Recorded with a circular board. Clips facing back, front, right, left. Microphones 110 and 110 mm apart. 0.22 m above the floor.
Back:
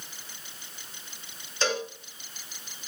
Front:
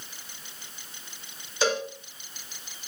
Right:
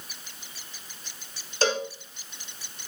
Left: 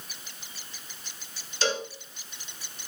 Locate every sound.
1.6 s a cowbell: 80° right, 1.3 m